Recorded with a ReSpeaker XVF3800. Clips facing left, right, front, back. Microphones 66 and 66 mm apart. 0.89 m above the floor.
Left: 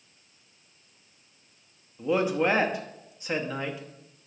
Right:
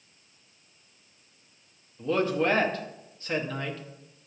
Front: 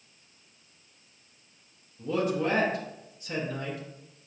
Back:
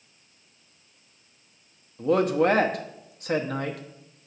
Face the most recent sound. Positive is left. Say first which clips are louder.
# left 1 dB, back 7 dB
turn(degrees=165)